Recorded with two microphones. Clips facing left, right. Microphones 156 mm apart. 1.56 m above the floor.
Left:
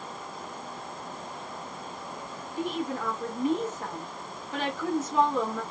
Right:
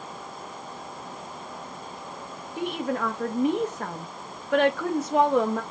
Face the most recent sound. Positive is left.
turn(degrees=-70)  # may be behind; listen again after turning